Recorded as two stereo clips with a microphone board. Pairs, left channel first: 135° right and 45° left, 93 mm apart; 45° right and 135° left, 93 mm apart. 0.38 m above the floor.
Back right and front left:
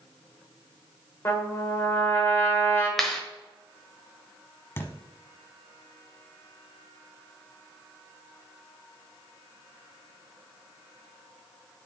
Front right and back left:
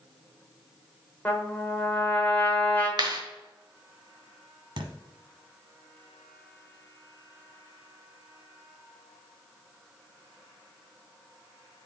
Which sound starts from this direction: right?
A trumpet, at 1.2 s.